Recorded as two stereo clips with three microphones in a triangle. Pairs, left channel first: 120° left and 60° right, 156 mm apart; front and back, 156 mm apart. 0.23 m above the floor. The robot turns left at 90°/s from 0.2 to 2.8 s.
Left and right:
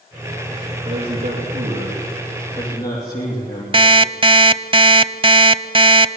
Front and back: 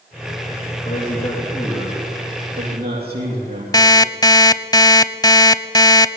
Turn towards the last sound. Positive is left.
turn(degrees=-40)